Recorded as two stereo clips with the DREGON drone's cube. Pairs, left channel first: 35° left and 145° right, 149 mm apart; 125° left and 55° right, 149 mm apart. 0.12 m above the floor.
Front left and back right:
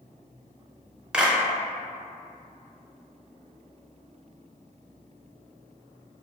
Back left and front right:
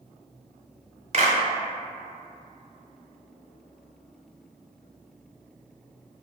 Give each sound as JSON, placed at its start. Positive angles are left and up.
{"t": 1.1, "sound": "a clap", "azimuth_deg": -65, "distance_m": 1.2}